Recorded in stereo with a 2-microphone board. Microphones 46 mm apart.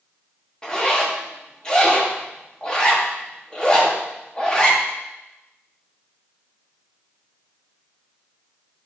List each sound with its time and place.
0.6 s a zipper: 20° left (ahead or behind), 2.5 m